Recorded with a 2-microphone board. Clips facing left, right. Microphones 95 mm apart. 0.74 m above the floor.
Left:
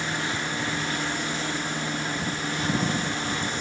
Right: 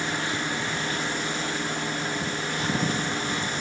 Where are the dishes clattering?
No dishes clattering in this recording.